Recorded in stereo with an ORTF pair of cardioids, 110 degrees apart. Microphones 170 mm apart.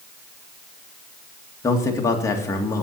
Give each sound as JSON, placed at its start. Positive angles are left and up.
{"t": 1.6, "sound": "a man speaking", "azimuth_deg": 20, "distance_m": 2.5}